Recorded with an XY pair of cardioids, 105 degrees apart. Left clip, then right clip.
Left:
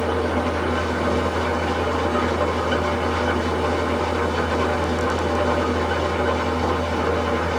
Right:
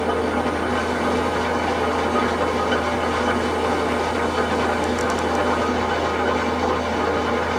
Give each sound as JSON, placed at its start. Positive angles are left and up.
{"t": 0.0, "sound": "an engine running", "azimuth_deg": -10, "distance_m": 1.5}